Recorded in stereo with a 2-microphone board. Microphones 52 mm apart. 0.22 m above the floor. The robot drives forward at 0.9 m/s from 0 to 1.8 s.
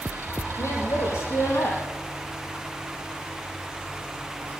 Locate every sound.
0.6 s a woman speaking: 80° left, 6.5 m; by 1.8 s 75° left (ahead or behind), 6.5 m